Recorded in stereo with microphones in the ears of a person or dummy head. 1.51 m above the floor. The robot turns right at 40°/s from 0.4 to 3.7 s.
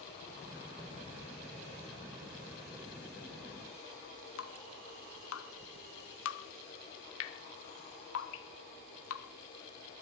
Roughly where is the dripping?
Left.